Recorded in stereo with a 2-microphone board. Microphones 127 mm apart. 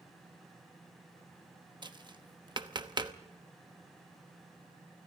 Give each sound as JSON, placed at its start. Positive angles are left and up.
{"t": 1.8, "sound": "tapping", "side_deg": -35, "distance_m": 0.9}